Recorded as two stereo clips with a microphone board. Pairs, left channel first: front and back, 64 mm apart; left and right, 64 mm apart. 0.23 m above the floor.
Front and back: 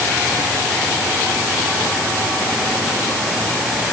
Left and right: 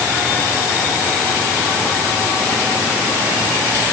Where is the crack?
No crack in this recording.